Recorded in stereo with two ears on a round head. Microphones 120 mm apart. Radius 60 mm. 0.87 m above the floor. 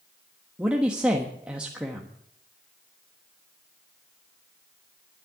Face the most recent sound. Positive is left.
turn(degrees=-10)  # may be behind; listen again after turning